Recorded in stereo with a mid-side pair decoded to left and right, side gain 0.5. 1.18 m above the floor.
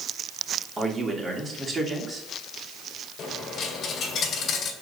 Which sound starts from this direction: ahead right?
A man speaking, at 0.8 s.